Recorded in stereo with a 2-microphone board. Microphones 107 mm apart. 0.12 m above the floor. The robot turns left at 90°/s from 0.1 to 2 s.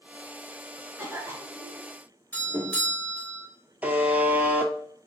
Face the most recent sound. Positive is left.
turn(degrees=-15)  # may be behind; listen again after turning